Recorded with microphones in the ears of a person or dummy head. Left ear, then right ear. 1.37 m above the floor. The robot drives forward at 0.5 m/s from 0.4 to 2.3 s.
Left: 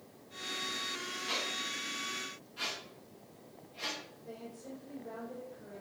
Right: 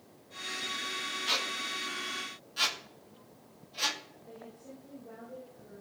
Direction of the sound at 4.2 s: 85° left.